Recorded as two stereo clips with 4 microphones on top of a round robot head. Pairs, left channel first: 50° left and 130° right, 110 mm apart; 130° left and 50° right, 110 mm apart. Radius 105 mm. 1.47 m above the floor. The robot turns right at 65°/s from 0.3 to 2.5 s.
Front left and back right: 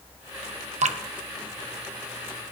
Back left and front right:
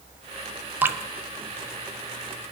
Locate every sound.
0.8 s dripping: 125° right, 1.2 m; by 1.0 s 115° right, 1.2 m